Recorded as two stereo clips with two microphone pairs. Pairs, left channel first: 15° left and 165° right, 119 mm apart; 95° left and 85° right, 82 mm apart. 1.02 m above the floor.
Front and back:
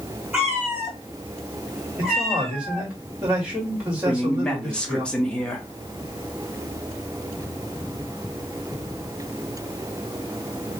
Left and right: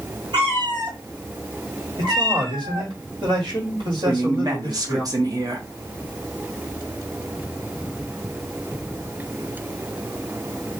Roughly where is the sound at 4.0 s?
Right.